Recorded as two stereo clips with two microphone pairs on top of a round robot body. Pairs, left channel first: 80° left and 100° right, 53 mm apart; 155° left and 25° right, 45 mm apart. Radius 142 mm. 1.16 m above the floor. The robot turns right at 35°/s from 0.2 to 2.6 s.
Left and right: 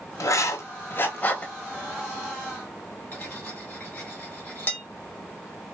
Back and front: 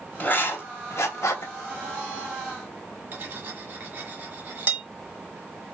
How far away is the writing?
About 0.9 m.